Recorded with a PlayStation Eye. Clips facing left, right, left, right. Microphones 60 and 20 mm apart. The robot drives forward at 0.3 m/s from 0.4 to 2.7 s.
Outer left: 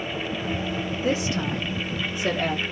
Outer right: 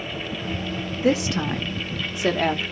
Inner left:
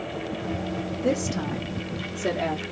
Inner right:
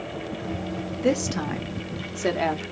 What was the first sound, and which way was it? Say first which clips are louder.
A woman speaking: outer right 5 dB, inner right 3 dB; 65° right (ahead or behind).